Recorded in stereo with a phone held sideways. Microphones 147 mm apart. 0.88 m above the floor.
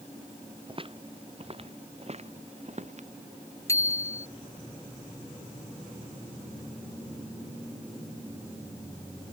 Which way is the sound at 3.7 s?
20° left (ahead or behind).